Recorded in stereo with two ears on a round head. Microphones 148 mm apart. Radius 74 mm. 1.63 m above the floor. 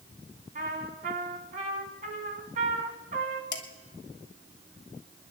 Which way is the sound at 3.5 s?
25° left (ahead or behind).